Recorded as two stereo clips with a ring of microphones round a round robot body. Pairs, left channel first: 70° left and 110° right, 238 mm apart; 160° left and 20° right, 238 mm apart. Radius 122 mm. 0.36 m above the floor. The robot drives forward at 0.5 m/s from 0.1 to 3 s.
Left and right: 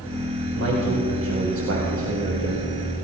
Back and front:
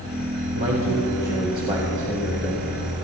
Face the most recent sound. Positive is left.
turn(degrees=-105)